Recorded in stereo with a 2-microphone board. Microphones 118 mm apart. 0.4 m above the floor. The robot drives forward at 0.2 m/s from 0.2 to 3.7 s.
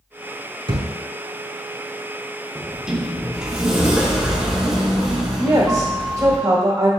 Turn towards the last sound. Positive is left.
turn(degrees=-30)  # may be behind; listen again after turning